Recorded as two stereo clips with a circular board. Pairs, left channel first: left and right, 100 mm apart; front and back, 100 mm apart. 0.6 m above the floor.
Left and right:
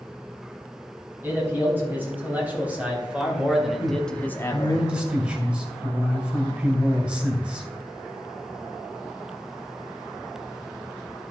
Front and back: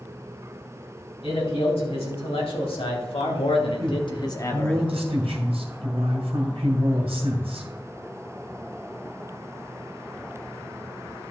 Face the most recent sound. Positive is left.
turn(degrees=-165)